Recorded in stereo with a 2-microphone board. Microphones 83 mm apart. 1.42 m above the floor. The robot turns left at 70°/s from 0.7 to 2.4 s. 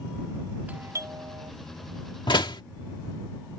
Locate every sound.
0.7 s a doorbell: 20° right; by 1.5 s 75° right
2.3 s a door slam: 75° left (ahead or behind); by 2.6 s 70° left (ahead or behind)